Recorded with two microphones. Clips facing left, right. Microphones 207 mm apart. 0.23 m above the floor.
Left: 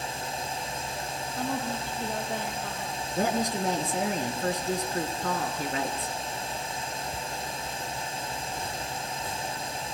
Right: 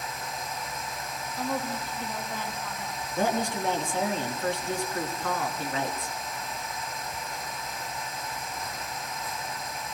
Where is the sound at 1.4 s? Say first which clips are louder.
Even; 65° left (ahead or behind), 7 m.